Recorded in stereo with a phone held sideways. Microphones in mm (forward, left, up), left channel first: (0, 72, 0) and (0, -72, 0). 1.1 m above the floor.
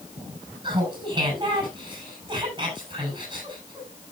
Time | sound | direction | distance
0.6 | laughter | 30° right (ahead or behind) | 6.5 m